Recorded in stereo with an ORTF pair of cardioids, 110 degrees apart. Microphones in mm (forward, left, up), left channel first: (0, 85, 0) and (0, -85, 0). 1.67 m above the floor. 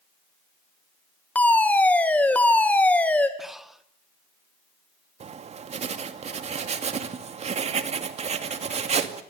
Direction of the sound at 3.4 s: Straight ahead.